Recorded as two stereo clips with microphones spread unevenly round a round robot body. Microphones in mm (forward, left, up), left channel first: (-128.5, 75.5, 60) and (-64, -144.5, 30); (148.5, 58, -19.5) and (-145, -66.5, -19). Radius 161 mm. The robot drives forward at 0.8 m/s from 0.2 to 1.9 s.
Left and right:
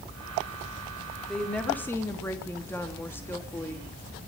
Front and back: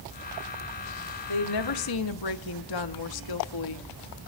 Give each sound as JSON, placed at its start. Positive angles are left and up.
{"t": 1.3, "sound": "a woman speaking", "azimuth_deg": 15, "distance_m": 1.7}